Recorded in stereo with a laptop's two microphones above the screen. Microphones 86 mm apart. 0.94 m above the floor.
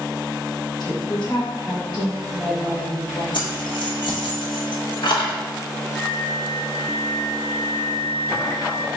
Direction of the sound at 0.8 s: 60° left (ahead or behind).